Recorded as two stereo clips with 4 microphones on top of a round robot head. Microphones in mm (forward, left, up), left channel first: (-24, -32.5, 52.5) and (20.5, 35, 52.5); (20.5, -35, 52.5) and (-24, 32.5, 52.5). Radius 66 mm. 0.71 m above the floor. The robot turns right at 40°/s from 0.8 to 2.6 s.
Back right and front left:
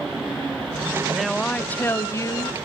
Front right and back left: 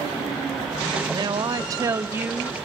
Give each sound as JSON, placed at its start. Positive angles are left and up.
{"t": 1.1, "sound": "a woman speaking", "azimuth_deg": 140, "distance_m": 1.1}